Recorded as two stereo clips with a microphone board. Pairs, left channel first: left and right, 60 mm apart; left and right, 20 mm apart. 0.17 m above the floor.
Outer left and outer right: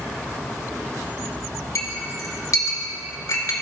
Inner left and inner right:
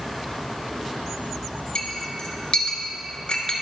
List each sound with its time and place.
1.8 s a clink: 55° left (ahead or behind), 1.2 m